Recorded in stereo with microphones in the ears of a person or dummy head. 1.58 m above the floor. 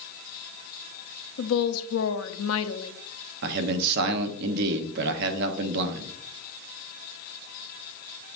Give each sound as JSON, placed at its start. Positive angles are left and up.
{"t": 1.4, "sound": "a woman speaking", "side_deg": 75, "distance_m": 0.7}
{"t": 3.4, "sound": "a man speaking", "side_deg": -60, "distance_m": 1.0}